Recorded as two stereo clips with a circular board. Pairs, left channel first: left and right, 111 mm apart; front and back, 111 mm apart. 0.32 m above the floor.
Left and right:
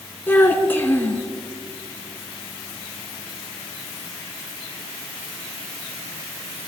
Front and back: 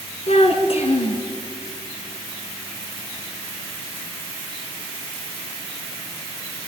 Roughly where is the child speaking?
Ahead.